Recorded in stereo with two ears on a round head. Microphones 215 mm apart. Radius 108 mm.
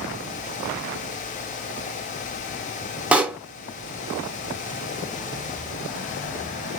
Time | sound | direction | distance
3.1 | a pop | 5° right (ahead or behind) | 0.6 m